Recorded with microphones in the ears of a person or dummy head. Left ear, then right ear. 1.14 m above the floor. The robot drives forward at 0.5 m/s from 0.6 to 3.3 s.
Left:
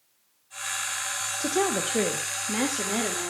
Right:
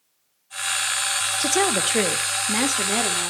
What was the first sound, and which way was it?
A woman speaking, 50° right (ahead or behind).